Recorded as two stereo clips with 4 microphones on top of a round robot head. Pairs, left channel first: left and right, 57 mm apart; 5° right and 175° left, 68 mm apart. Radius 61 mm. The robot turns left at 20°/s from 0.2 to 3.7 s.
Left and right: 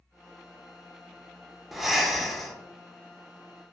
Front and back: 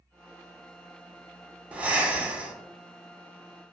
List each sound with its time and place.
1.7 s breathing: 170° right, 0.6 m; by 2.6 s 175° left, 0.6 m